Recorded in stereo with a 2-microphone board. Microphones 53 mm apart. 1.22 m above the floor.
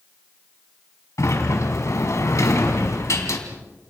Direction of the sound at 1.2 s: 70° left (ahead or behind).